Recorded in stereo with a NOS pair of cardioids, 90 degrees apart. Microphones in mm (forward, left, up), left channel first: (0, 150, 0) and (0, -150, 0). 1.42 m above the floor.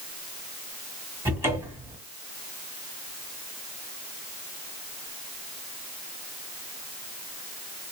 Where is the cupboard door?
10° right, 1.3 m.